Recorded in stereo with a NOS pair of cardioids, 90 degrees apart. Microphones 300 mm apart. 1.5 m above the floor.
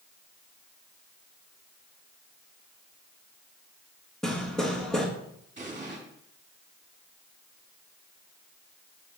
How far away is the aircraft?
No aircraft in this recording.